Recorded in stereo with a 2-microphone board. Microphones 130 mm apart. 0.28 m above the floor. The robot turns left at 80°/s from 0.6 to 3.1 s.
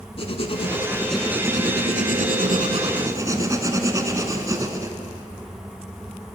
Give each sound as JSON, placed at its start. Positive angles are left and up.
{"t": 0.2, "sound": "writing", "azimuth_deg": 45, "distance_m": 0.7}